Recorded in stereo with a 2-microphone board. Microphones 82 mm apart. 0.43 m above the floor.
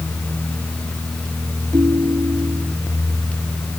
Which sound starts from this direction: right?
A ringtone, at 1.7 s.